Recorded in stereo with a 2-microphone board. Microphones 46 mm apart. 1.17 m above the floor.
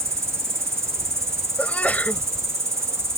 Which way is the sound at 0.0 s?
80° right.